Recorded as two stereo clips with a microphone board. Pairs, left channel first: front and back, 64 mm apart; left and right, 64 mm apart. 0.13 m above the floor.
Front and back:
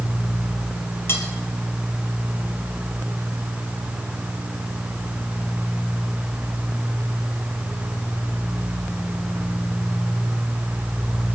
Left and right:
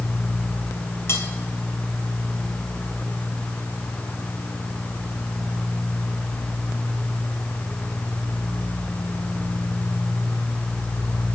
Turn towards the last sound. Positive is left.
turn(degrees=45)